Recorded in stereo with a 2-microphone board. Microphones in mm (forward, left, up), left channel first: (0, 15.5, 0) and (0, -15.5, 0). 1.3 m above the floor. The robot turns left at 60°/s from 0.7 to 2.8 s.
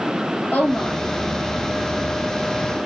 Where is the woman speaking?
60° left (ahead or behind), 1.3 m; by 1.0 s 45° left (ahead or behind), 1.3 m.